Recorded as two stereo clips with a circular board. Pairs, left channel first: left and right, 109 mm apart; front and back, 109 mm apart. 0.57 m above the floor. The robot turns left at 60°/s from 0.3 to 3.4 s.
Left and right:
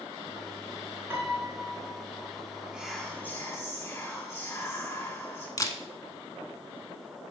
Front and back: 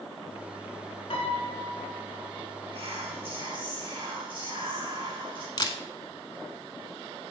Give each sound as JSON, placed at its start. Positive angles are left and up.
{"t": 1.1, "sound": "a piano", "azimuth_deg": -20, "distance_m": 1.5}
{"t": 2.7, "sound": "whispering", "azimuth_deg": -165, "distance_m": 1.1}
{"t": 5.6, "sound": "a camera shutter", "azimuth_deg": 40, "distance_m": 0.7}